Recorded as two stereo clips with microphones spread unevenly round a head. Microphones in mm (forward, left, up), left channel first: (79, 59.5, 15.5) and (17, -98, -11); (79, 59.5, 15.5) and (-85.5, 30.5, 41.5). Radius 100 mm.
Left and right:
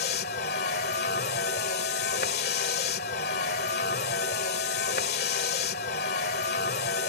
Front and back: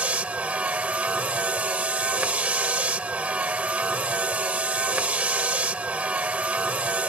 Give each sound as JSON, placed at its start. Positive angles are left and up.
{"t": 0.0, "sound": "a vehicle", "azimuth_deg": 110}